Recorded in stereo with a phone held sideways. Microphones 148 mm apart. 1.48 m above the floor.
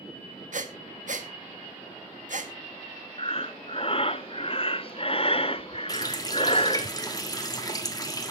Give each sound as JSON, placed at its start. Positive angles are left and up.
{"t": 0.5, "sound": "breathing", "side_deg": -65, "distance_m": 1.5}
{"t": 3.2, "sound": "breathing", "side_deg": 40, "distance_m": 0.5}
{"t": 5.9, "sound": "a running tap", "side_deg": 25, "distance_m": 1.9}